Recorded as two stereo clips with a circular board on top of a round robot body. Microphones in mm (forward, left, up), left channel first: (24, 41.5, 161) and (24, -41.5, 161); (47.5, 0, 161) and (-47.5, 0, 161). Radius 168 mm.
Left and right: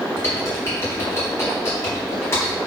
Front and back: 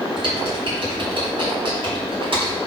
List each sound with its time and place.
0.2 s typing on a keyboard: 150° left, 3.5 m